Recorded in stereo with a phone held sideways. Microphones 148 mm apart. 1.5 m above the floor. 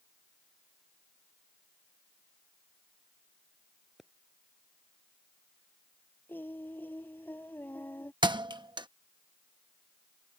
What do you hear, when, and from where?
4.0 s a pop: 5° right (ahead or behind)
6.3 s singing: 10° left (ahead or behind)
8.2 s a thud: 30° right (ahead or behind)